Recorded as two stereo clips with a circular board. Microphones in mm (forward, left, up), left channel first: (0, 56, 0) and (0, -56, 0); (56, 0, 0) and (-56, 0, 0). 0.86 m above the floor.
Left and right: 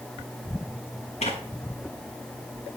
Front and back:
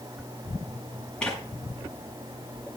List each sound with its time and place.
1.2 s tearing paper: 80° left, 6.5 m